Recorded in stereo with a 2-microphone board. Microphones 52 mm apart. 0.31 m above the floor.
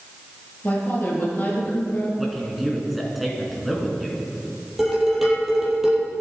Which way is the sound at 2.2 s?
Centre (ahead or behind).